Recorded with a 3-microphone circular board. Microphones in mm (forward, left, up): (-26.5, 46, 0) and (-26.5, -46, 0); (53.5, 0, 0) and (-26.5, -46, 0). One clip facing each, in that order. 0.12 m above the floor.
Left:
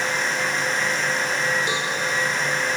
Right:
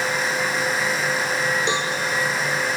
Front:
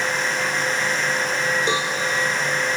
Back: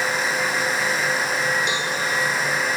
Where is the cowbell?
25° right, 2.5 m.